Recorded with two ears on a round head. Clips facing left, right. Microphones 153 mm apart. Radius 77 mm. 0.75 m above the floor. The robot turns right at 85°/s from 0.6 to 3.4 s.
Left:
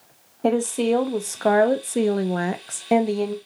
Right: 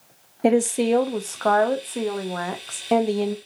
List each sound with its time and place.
0.4 s a woman speaking: 35° right, 0.5 m; by 3.4 s 160° right, 0.5 m